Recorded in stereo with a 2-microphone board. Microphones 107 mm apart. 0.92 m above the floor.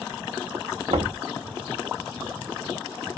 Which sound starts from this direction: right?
Knocking, at 0.9 s.